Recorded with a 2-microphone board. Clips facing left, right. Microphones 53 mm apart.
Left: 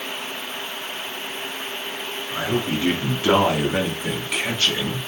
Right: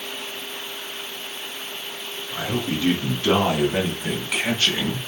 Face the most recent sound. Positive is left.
turn(degrees=-25)  # may be behind; listen again after turning